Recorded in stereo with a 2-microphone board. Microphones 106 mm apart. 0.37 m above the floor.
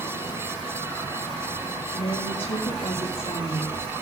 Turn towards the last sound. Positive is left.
turn(degrees=70)  # may be behind; listen again after turning